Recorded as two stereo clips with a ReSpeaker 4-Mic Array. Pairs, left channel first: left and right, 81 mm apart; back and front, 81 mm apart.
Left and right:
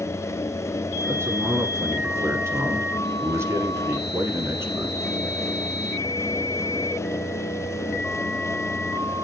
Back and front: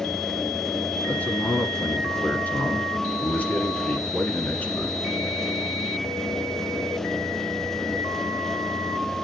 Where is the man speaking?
120° right, 1.5 m.